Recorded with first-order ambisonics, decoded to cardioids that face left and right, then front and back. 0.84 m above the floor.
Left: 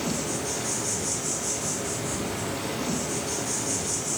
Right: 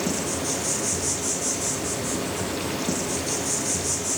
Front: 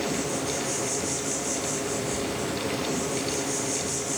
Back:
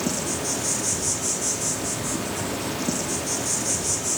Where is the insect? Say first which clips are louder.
Right 3 dB, back 1 dB; 150° right, 0.8 m.